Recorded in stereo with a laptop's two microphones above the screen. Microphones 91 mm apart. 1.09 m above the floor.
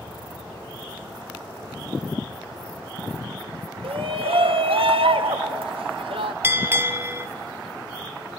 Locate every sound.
3.8 s a shout: 85° right, 1.2 m
6.4 s a bell: 25° right (ahead or behind), 1.0 m